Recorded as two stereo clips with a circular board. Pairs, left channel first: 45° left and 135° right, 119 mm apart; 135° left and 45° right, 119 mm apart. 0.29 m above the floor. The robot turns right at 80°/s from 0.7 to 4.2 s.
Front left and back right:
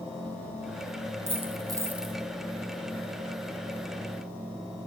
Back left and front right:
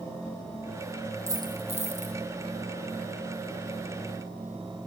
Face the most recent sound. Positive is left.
turn(degrees=125)